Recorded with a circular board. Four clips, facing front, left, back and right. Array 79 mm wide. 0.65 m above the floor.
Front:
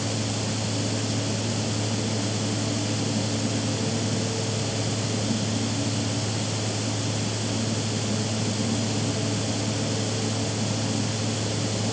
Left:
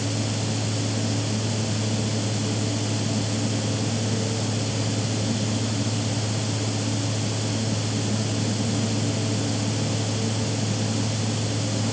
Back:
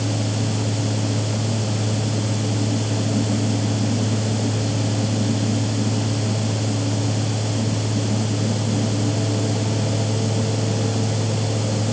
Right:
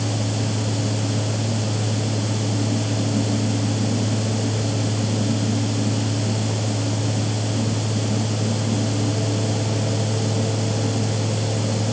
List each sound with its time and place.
Only background noise.